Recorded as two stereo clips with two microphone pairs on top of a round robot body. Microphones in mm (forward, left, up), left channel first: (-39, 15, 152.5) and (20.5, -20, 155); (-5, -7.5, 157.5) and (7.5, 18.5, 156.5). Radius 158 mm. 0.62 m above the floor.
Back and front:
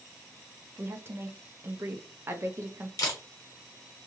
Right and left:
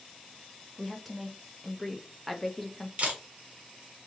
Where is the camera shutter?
105° left, 0.8 m.